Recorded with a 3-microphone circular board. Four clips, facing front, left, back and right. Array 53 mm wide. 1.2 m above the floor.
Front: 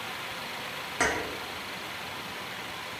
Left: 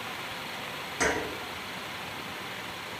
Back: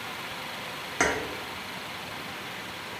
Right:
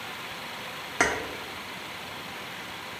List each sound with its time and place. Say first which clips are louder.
1.0 s keys jangling: right 3 dB, back 2 dB; 105° right, 0.7 m